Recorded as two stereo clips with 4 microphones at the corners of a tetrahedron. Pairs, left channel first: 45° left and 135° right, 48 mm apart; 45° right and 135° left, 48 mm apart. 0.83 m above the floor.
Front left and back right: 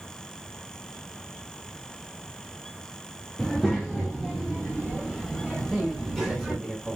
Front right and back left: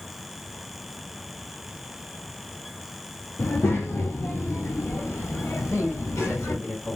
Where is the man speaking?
40° right, 2 m.